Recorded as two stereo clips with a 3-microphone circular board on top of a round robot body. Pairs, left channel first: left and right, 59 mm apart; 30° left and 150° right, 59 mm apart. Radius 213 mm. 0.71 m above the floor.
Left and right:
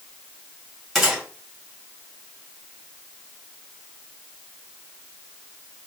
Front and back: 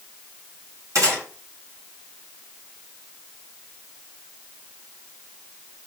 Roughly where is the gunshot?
Behind.